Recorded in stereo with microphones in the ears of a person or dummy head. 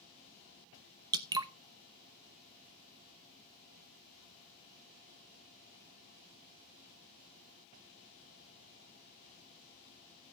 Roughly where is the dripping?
Right.